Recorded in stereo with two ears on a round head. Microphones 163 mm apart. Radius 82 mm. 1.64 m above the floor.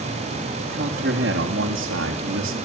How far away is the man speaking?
About 3.5 m.